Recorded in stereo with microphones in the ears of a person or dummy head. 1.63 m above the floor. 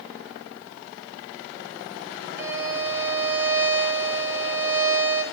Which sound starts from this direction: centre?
A violin, at 2.4 s.